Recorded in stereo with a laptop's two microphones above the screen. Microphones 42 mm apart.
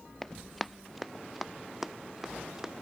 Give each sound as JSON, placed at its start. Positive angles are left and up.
{"t": 0.2, "sound": "running footsteps", "side_deg": 0}